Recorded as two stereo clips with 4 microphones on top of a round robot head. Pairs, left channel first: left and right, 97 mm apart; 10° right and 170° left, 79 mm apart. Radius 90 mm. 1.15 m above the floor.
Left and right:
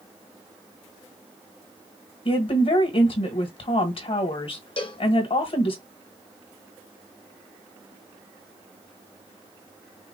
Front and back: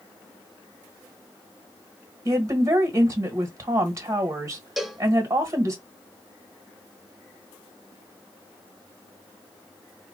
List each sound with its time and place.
2.2 s a woman speaking: 120° left, 1.6 m
4.8 s a cowbell: 80° left, 1.0 m